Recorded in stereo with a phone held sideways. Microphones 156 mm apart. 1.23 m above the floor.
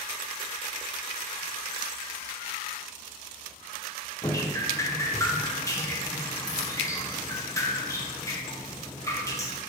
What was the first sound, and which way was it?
Dripping, 20° left (ahead or behind).